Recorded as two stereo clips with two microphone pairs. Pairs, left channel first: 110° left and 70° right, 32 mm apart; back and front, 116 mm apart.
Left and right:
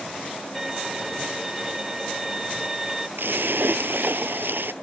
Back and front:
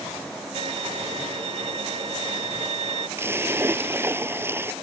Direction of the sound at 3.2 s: 70° right.